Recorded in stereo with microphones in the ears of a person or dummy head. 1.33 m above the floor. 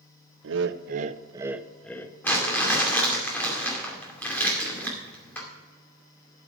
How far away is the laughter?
About 0.8 m.